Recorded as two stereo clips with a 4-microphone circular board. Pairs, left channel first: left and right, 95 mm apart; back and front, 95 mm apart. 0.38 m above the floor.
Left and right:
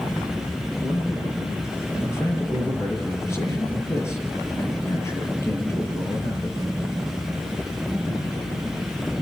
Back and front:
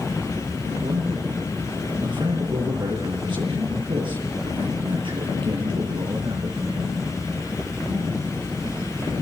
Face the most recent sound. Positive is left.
turn(degrees=30)